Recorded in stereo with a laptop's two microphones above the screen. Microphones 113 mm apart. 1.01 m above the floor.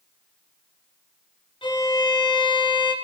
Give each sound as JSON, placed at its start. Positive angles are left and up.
{"t": 1.6, "sound": "a violin", "side_deg": 55, "distance_m": 1.4}